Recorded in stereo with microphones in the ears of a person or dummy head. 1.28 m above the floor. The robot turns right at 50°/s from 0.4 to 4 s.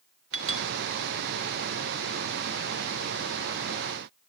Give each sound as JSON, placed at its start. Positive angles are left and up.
{"t": 0.3, "sound": "a clink", "side_deg": -80, "distance_m": 2.5}